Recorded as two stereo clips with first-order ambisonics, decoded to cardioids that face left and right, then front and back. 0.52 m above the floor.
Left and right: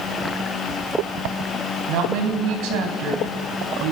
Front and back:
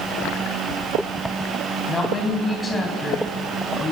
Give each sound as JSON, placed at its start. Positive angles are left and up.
{"t": 1.9, "sound": "a woman speaking", "azimuth_deg": -75, "distance_m": 3.5}